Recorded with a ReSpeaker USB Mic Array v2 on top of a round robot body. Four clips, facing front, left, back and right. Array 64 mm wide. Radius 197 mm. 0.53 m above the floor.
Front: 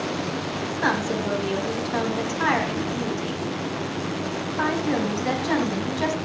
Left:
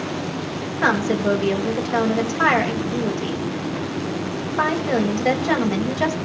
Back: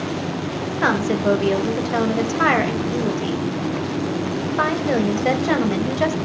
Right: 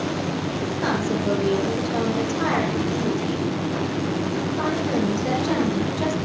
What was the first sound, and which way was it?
A woman speaking, 140° left.